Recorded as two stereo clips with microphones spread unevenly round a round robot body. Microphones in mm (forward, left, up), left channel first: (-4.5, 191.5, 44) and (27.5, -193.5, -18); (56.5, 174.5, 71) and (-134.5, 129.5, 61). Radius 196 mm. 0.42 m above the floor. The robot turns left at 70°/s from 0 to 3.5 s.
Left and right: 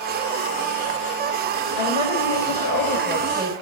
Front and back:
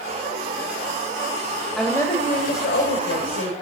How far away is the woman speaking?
About 2.5 m.